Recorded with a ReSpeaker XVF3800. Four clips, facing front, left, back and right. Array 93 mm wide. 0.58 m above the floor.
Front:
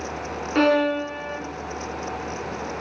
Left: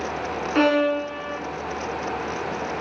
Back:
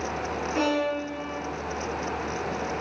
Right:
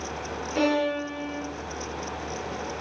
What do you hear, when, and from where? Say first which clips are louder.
0.6 s a violin: left 5 dB, front 7 dB; 45° left, 3.5 m